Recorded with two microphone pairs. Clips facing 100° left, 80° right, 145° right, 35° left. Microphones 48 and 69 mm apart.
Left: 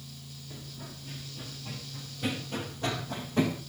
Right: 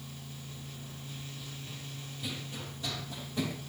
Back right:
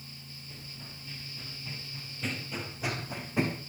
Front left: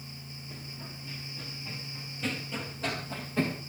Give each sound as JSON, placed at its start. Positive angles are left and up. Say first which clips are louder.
{"t": 0.5, "sound": "running footsteps", "louder": "left 1 dB, front left 4 dB", "azimuth_deg": 115, "distance_m": 6.0}